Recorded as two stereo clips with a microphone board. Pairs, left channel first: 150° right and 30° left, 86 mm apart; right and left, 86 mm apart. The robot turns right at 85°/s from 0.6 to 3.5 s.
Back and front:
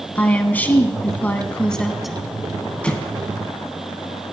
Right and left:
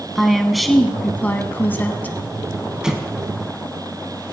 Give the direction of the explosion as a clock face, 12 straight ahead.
7 o'clock.